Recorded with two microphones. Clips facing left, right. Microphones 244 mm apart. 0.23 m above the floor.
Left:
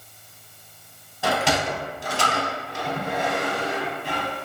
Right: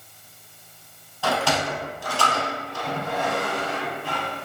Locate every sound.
1.2 s a sliding door: 20° left (ahead or behind), 0.6 m